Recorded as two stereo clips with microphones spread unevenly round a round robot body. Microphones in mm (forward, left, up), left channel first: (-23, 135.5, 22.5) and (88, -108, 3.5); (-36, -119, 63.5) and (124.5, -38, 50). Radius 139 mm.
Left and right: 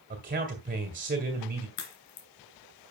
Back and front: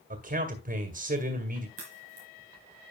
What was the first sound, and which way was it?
A man speaking, 10° right.